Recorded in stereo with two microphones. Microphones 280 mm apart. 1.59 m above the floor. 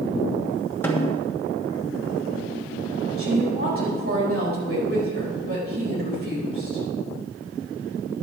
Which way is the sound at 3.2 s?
50° right (ahead or behind).